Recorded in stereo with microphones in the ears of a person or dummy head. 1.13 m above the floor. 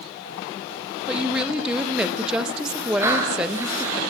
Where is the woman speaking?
Centre (ahead or behind), 1.3 m.